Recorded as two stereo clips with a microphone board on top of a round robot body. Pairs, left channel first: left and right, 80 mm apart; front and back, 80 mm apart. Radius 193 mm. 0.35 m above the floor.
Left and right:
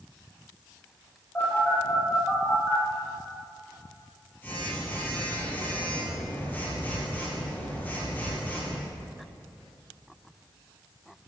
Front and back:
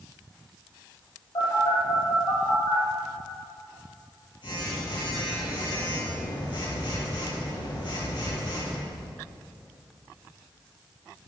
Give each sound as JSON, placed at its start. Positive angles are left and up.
{"t": 1.4, "sound": "a phone buzzing", "azimuth_deg": 20, "distance_m": 6.0}